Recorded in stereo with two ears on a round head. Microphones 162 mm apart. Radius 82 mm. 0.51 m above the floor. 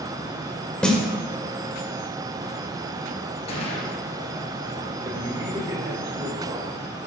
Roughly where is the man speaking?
Right.